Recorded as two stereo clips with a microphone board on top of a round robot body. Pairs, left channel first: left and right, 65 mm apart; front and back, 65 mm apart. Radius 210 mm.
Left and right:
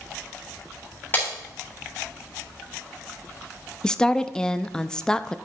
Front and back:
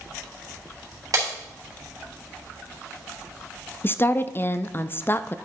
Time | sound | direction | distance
1.1 | breaking glass | 150° left | 3 m
3.8 | a woman speaking | 20° left | 0.7 m